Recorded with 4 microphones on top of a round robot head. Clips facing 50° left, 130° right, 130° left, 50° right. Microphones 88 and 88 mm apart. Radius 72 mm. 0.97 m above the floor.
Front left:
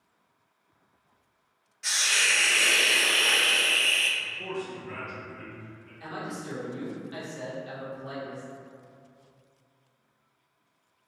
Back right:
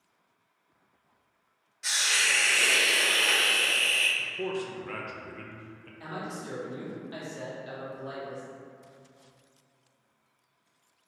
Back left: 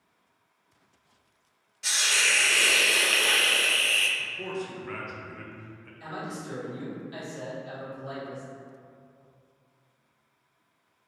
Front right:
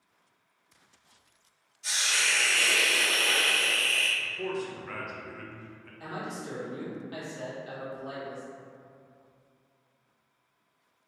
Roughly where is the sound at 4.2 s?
Behind right.